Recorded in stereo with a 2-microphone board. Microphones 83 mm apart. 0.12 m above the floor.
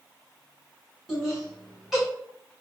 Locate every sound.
1.1 s laughter: 5° right (ahead or behind), 1.2 m